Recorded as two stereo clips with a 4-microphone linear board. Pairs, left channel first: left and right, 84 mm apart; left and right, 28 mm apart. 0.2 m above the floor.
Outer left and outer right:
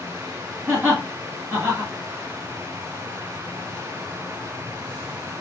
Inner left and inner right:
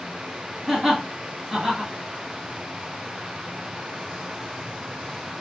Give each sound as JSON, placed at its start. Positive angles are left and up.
{"t": 0.7, "sound": "laughter", "side_deg": -25, "distance_m": 1.7}